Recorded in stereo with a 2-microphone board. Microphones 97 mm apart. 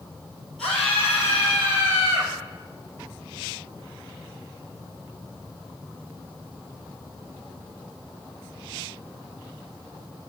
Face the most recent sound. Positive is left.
turn(degrees=25)  # may be behind; listen again after turning